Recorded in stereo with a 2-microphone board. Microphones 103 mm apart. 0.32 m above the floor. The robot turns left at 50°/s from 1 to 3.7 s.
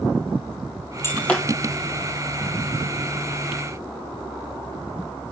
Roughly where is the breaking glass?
Left.